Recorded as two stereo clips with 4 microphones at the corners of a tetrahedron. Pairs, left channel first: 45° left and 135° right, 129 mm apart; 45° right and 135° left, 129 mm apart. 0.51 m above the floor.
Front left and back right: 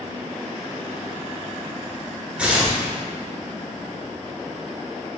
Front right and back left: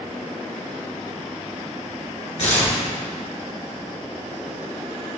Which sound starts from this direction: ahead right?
Tearing paper, at 2.4 s.